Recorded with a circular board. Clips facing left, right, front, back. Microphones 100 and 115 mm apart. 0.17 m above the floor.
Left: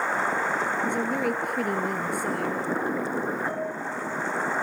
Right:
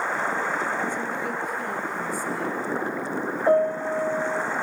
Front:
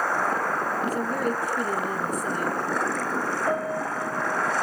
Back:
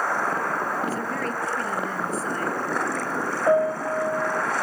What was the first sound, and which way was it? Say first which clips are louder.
A woman speaking: left 3 dB, front 2 dB; 75° left.